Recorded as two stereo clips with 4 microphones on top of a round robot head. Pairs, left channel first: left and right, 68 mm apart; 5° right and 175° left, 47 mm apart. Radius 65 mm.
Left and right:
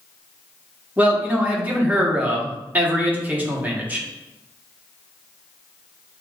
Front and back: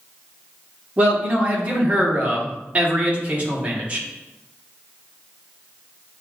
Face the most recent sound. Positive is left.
turn(degrees=-145)